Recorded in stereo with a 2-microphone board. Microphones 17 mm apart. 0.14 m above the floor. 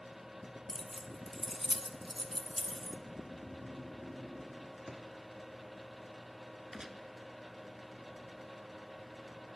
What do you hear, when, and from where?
0.7 s keys jangling: 10° left (ahead or behind), 1.1 m; by 3.0 s centre (ahead or behind), 1.4 m
3.1 s snoring: 65° right (ahead or behind), 3 m
4.9 s a drawer: 70° right (ahead or behind), 3 m
6.7 s a gunshot: 45° right (ahead or behind), 1.1 m